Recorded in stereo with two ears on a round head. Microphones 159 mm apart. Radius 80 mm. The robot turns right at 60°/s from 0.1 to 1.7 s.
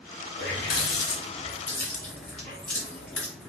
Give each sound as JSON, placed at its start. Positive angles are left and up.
{"t": 0.4, "sound": "a running tap", "side_deg": 85, "distance_m": 1.5}